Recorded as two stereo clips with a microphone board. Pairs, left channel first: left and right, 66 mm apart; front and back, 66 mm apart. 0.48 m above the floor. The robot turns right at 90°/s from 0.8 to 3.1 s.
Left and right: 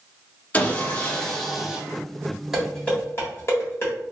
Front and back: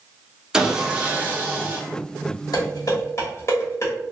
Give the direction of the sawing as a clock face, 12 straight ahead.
8 o'clock.